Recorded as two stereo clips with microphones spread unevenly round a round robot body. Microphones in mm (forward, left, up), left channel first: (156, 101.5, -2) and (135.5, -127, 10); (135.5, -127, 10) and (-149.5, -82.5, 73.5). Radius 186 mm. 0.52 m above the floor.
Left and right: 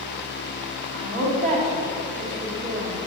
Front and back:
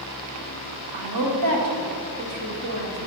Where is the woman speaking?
170° left, 1.8 m.